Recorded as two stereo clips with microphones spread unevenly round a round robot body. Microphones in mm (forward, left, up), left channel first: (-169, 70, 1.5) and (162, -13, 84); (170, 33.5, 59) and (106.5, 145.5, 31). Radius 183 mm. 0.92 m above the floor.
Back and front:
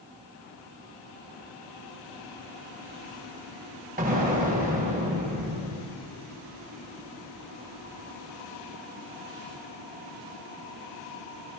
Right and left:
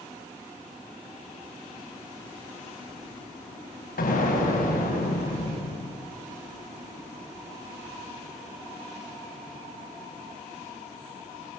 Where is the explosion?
85° right, 4.5 m.